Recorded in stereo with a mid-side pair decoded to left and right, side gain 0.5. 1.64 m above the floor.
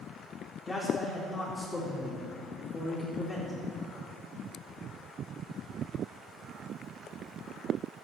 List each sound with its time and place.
0.7 s a man speaking: 15° left, 3.5 m